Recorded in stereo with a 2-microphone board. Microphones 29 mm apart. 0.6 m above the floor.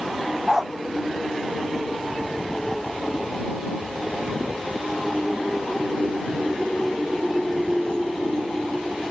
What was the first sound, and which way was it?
A dog barking, 20° right (ahead or behind).